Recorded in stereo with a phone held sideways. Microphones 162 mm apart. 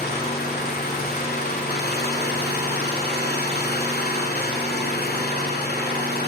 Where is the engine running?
75° left (ahead or behind), 2 m.